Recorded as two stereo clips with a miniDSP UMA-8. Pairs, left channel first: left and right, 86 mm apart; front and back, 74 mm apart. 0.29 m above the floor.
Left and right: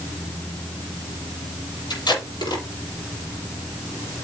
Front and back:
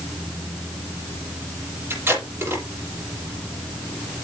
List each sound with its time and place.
1.9 s tape being pulled: 120° left, 6.5 m